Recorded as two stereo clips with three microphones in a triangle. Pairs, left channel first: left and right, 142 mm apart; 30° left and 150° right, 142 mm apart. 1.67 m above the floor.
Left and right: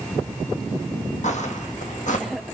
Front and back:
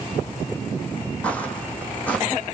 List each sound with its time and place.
1.2 s footsteps: 110° left, 3.5 m